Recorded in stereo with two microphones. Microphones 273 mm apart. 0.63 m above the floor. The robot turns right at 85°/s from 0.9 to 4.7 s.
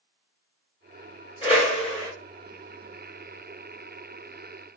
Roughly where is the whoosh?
Left.